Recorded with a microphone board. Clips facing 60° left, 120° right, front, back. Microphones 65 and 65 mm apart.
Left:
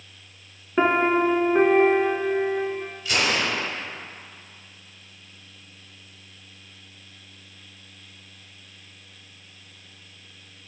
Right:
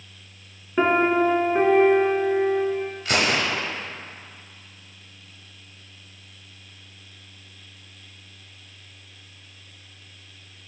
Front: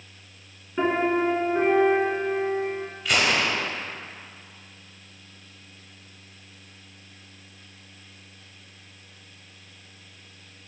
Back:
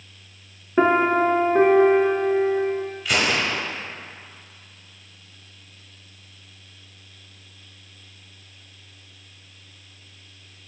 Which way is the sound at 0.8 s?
140° left.